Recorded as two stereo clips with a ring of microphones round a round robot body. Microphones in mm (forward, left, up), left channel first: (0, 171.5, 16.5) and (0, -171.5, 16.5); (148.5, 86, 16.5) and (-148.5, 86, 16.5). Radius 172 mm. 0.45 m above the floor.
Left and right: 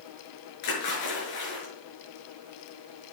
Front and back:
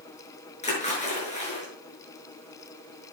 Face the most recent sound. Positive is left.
turn(degrees=65)